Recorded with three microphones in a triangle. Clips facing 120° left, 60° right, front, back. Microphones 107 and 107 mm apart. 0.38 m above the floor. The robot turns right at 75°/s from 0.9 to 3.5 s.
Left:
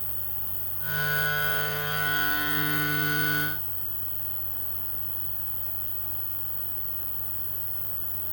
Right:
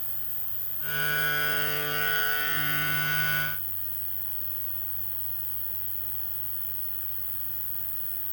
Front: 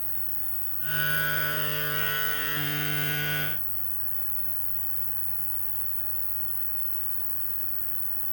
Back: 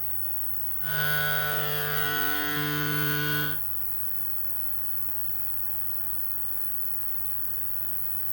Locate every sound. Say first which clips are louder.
0.0 s an insect: left 6 dB, back 1 dB; 130° right, 0.9 m; by 8.3 s 65° left, 0.9 m